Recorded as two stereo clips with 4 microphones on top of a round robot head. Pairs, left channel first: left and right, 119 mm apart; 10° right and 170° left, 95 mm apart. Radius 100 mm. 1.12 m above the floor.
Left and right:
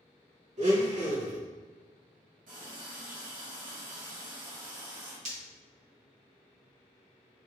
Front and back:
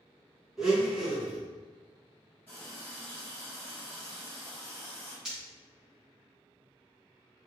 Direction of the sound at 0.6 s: 100° right.